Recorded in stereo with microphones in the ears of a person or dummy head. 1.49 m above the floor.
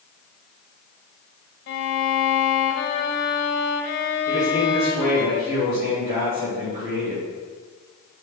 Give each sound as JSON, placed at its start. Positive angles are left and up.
{"t": 1.7, "sound": "a violin", "side_deg": 50, "distance_m": 1.1}
{"t": 4.3, "sound": "a man speaking", "side_deg": -45, "distance_m": 3.5}